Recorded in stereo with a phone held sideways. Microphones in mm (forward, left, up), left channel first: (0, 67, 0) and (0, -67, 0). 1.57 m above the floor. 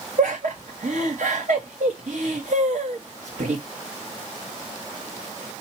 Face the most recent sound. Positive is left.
turn(degrees=-85)